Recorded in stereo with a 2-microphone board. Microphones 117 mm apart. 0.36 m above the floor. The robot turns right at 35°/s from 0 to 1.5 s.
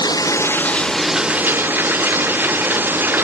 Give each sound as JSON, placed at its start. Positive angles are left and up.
{"t": 0.0, "sound": "running water", "azimuth_deg": 145}